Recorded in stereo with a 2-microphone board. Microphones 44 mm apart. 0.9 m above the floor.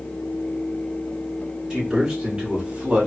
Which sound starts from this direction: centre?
A man speaking, at 1.7 s.